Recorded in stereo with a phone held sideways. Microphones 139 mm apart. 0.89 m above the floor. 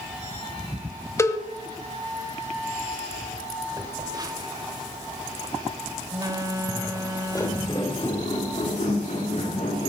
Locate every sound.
1.2 s a cowbell: 20° left (ahead or behind), 1.1 m
3.7 s a phone buzzing: 30° right (ahead or behind), 1.5 m
6.7 s footsteps: 10° left (ahead or behind), 2.5 m; by 9.9 s 65° left (ahead or behind), 5 m